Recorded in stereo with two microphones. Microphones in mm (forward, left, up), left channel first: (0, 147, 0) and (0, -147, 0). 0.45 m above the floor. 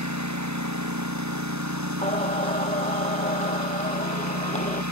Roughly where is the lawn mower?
Right.